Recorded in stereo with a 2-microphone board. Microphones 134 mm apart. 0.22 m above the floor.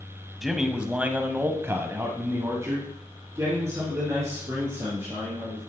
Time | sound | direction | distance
0.4 | a man speaking | centre (ahead or behind) | 1.1 m